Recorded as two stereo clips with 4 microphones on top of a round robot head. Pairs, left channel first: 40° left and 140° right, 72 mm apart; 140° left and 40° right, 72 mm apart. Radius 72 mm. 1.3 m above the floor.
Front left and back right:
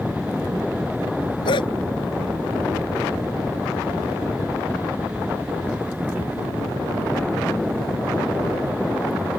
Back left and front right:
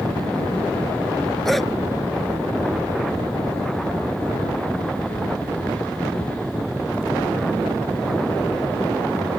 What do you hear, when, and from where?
1.4 s a dog barking: 50° left